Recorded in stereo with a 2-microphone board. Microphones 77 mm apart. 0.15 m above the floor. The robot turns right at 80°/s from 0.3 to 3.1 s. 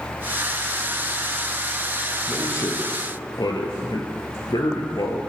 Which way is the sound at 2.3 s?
15° left.